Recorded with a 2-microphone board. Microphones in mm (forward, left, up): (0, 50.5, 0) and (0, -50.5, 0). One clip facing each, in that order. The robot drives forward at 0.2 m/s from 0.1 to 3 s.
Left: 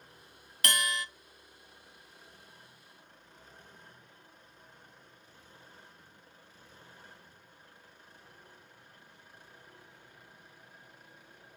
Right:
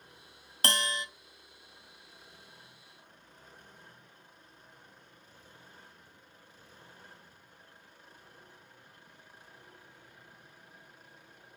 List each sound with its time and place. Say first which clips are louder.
0.6 s a bell: even; 30° right (ahead or behind), 0.5 m; by 1.1 s 25° right (ahead or behind), 0.6 m